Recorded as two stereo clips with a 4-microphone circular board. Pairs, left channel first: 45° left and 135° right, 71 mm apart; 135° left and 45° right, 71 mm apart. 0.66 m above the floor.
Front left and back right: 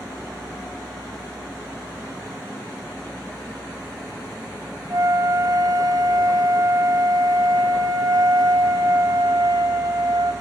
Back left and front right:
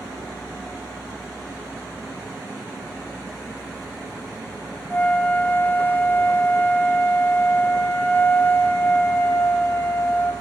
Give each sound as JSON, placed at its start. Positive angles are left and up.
{"t": 4.9, "sound": "a flute", "azimuth_deg": -165, "distance_m": 2.0}